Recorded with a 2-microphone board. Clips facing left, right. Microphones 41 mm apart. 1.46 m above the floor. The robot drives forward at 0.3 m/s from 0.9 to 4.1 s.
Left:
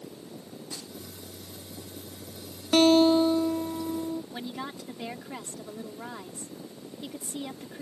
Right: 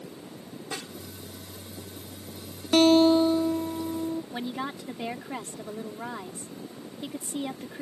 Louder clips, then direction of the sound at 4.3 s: Right 4 dB; 15° right (ahead or behind).